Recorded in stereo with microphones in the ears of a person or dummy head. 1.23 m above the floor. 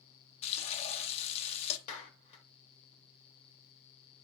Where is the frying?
30° left (ahead or behind), 0.9 m.